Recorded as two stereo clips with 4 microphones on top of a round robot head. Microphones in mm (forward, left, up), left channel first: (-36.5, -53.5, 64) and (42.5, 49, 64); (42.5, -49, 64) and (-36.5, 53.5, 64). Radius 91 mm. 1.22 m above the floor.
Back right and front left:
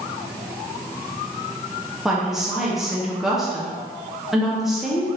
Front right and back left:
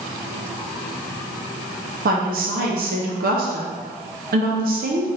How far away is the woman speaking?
About 0.7 m.